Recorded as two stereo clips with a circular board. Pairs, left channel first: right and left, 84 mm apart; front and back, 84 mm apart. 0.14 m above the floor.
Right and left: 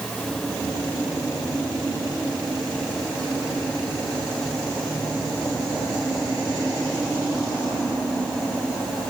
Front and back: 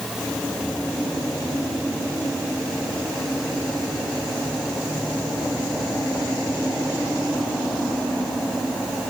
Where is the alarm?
No alarm in this recording.